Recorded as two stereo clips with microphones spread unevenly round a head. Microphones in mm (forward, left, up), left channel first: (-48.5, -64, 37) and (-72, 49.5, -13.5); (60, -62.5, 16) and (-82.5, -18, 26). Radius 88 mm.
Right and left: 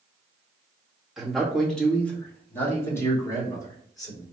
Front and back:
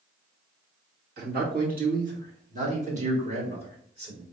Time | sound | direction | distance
1.2 | a man speaking | straight behind | 1.8 m